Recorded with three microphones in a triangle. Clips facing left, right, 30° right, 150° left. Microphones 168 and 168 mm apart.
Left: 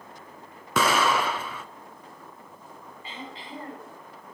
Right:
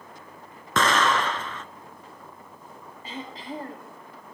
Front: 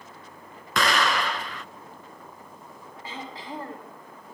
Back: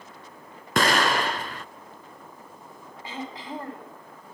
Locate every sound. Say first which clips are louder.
0.8 s an explosion: even, back 2 dB; 165° left, 0.6 m
3.0 s throat clearing: right 5 dB, back 2 dB; 140° right, 6.5 m